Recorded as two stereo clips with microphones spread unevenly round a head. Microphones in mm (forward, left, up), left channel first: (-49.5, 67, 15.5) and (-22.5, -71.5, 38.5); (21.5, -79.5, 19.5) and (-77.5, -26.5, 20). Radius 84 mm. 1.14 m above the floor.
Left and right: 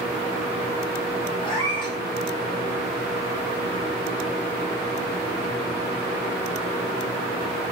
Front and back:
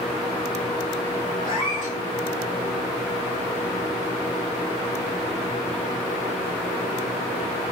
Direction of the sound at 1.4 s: 35° left.